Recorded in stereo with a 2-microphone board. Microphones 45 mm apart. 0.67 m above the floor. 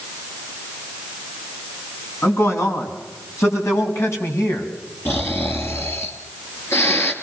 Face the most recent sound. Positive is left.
turn(degrees=55)  # may be behind; listen again after turning